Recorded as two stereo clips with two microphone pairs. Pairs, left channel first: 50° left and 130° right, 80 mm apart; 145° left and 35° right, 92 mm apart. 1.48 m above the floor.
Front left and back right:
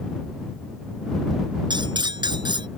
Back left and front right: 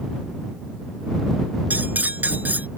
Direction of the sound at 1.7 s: 110° right.